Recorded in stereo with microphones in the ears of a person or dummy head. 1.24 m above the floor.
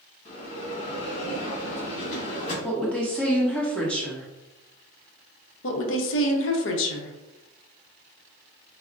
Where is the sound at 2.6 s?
5° left (ahead or behind), 1.1 m.